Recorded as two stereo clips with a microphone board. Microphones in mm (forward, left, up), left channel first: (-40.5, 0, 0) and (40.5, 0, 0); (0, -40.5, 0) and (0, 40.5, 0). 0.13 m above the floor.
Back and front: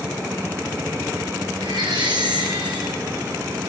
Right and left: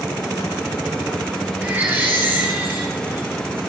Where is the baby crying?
25° left, 7 m.